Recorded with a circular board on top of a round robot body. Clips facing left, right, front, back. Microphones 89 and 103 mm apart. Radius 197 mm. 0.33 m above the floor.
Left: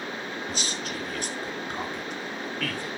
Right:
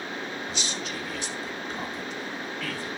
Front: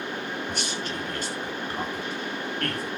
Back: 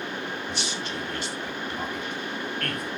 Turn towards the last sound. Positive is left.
turn(degrees=60)